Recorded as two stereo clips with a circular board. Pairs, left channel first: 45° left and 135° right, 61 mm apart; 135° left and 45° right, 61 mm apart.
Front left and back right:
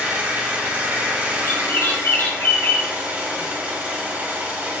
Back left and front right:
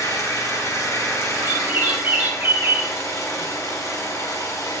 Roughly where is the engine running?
Behind.